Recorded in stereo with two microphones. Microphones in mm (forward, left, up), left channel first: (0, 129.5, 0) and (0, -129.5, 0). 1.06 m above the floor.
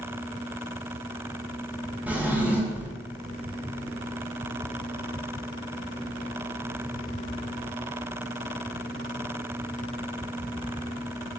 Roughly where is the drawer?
Centre.